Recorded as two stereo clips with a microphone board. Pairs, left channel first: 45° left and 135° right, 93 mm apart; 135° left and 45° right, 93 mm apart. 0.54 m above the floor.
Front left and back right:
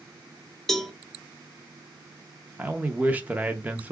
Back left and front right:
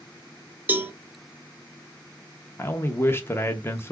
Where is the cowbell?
30° right, 0.6 m.